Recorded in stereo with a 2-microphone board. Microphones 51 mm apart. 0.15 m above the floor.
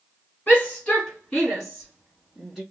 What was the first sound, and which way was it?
A shout, 25° left (ahead or behind).